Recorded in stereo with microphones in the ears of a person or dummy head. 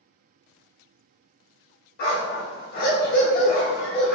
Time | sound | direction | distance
2.0 | a dog barking | 55° left (ahead or behind) | 1.4 m